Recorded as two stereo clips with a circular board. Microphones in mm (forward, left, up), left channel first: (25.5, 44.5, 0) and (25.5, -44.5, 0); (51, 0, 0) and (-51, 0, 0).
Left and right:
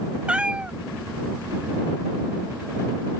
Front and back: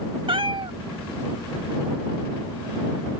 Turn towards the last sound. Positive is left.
turn(degrees=-165)